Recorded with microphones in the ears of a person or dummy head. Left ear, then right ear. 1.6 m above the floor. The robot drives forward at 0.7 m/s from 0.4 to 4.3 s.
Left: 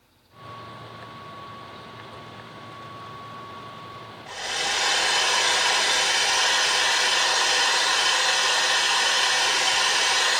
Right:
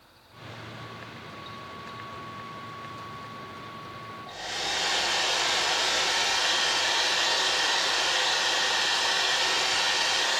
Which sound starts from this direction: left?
A hair dryer, at 4.3 s.